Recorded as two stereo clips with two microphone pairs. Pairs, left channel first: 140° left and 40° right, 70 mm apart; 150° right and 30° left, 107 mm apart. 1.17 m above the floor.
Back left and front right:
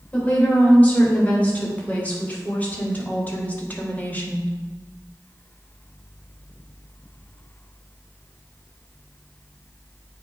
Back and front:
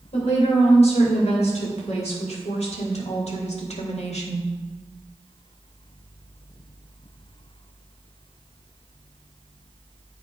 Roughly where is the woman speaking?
Behind right.